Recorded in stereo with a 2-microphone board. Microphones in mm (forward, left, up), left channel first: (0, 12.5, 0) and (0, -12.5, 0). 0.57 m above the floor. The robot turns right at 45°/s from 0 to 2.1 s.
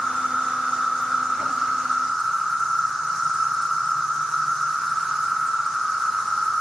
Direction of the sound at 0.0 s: 90° left.